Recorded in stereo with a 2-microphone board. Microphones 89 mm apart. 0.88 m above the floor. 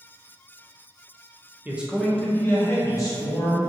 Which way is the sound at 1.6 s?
20° right (ahead or behind).